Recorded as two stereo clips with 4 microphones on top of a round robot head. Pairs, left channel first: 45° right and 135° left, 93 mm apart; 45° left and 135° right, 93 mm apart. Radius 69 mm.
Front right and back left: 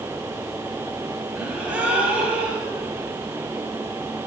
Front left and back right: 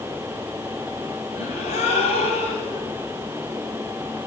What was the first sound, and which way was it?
A gasp, 55° left.